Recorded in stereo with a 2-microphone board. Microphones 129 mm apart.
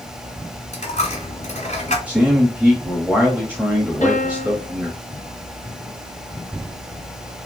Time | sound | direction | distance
0.7 | a dropped coin | 65° left (ahead or behind) | 1.2 m
2.1 | a man speaking | 10° right (ahead or behind) | 1.2 m
4.0 | a piano | 75° left (ahead or behind) | 1.6 m